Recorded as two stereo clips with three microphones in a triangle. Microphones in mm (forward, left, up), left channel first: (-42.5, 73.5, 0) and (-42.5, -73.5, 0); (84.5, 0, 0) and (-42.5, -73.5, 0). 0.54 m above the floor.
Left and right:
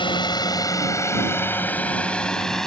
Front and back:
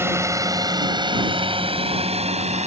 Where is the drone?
140° left; by 2.7 s 175° left.